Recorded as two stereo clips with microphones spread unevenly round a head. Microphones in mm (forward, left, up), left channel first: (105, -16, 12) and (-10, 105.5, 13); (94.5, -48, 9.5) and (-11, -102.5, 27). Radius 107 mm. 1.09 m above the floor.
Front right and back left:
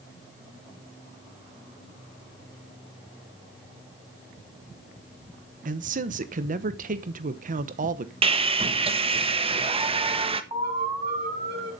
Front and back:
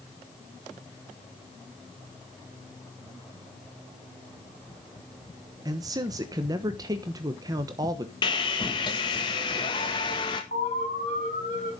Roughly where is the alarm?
Left.